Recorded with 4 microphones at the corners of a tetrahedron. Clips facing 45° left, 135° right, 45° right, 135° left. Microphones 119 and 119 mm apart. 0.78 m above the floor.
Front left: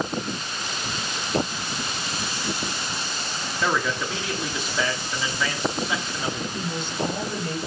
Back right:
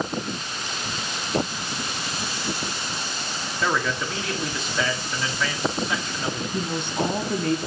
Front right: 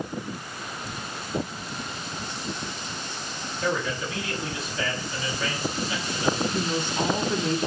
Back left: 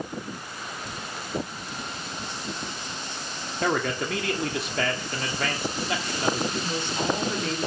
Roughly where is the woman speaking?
Behind right.